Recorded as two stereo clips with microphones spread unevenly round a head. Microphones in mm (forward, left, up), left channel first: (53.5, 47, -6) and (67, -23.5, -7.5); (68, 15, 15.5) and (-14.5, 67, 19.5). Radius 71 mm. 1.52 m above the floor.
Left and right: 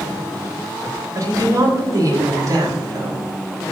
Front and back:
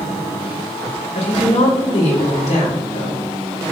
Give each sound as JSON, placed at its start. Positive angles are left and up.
{"t": 1.1, "sound": "a woman speaking", "azimuth_deg": -40, "distance_m": 6.5}